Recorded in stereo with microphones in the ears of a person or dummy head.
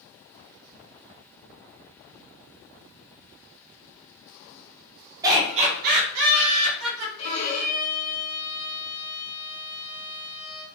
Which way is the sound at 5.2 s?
10° right (ahead or behind).